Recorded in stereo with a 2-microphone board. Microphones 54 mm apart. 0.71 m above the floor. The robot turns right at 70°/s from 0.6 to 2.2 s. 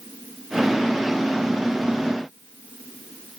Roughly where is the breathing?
No breathing in this recording.